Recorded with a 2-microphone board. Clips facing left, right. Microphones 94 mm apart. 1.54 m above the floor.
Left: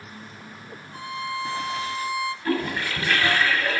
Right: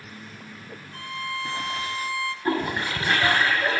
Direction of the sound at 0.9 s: 20° left (ahead or behind).